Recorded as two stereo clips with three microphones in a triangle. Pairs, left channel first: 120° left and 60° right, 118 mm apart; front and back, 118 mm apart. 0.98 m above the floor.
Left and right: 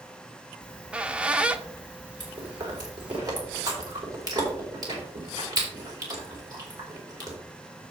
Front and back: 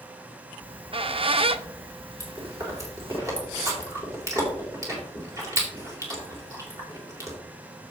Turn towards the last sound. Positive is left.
turn(degrees=-115)